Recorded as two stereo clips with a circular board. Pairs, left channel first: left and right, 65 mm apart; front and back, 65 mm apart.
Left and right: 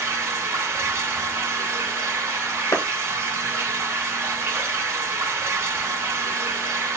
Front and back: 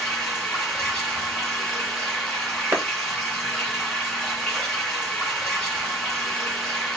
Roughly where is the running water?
Right.